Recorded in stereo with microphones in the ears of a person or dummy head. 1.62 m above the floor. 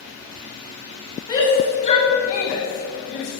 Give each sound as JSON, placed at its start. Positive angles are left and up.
{"t": 1.3, "sound": "a shout", "side_deg": 20, "distance_m": 2.5}